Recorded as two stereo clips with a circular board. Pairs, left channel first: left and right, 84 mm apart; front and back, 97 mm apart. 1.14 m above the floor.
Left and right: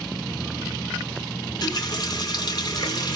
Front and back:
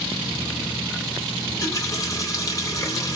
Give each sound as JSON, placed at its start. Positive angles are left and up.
{"t": 1.4, "sound": "a running tap", "azimuth_deg": 55, "distance_m": 2.5}